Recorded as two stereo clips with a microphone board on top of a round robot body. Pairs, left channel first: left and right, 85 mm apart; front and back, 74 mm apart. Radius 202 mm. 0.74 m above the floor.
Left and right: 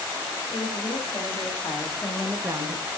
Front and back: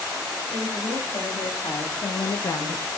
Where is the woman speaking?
35° left, 2.5 m; by 2.9 s 75° right, 0.7 m.